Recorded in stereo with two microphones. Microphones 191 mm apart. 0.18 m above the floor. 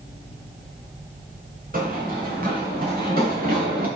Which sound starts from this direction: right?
Running footsteps, at 1.7 s.